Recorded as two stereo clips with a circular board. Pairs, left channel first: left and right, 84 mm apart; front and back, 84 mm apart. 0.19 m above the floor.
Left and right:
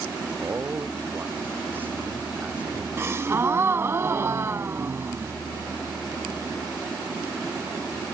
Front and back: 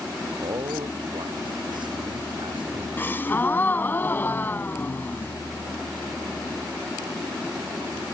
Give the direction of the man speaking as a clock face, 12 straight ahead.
5 o'clock.